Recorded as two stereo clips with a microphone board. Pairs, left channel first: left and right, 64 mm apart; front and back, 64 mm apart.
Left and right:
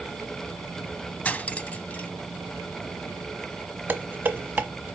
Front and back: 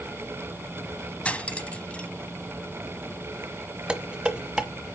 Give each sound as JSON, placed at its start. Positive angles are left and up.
{"t": 1.2, "sound": "cutlery clinking", "azimuth_deg": 50, "distance_m": 0.8}
{"t": 3.9, "sound": "dishes clattering", "azimuth_deg": -120, "distance_m": 1.1}